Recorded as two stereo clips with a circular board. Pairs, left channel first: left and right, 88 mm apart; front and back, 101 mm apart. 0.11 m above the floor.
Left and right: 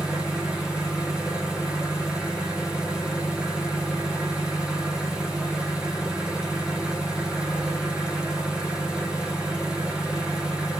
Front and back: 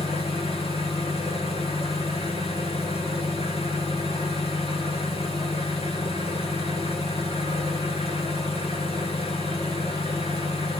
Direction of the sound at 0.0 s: 5° right.